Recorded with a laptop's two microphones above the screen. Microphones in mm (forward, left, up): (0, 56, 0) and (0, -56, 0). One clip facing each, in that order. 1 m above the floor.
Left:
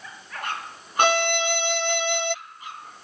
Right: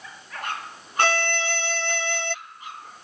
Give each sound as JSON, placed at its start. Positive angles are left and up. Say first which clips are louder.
{"t": 1.0, "sound": "a violin", "louder": "left 3 dB", "side_deg": 20}